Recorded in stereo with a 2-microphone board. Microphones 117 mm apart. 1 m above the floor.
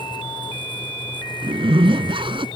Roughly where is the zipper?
Right.